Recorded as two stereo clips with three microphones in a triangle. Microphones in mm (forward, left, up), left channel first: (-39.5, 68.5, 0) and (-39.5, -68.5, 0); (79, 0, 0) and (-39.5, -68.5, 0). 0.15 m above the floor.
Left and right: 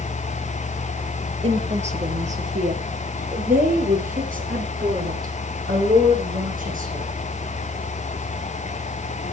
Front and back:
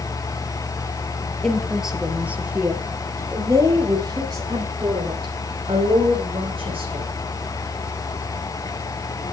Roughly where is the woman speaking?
Ahead right.